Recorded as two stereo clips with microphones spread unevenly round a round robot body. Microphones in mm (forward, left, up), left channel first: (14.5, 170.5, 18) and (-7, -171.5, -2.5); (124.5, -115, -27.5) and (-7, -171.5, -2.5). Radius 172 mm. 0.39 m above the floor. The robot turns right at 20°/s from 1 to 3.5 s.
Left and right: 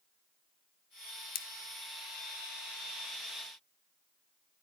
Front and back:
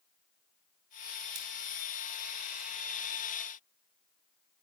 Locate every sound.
1.4 s scissors: 150° left, 0.6 m; by 1.5 s 155° left, 0.6 m